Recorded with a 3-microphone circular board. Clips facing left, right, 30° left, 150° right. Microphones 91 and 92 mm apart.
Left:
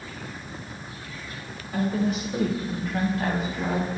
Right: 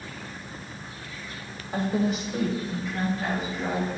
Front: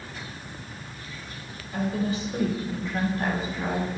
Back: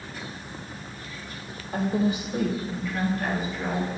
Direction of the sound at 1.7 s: 135° right.